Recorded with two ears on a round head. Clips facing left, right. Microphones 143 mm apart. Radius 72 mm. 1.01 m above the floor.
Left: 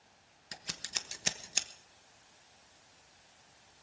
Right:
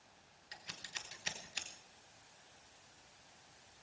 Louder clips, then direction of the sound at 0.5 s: Left 6 dB; 55° left (ahead or behind).